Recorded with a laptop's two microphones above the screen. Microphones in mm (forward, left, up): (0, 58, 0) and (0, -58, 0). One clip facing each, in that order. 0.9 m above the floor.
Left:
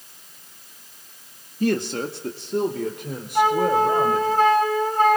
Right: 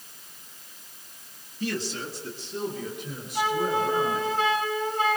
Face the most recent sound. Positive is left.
turn(degrees=50)  # may be behind; listen again after turning